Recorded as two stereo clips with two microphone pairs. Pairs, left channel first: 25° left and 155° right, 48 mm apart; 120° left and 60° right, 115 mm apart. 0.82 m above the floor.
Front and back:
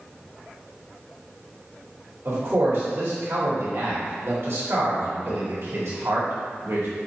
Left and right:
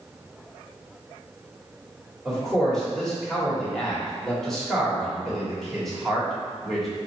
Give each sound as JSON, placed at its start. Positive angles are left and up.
{"t": 2.2, "sound": "a man speaking", "azimuth_deg": -155, "distance_m": 1.8}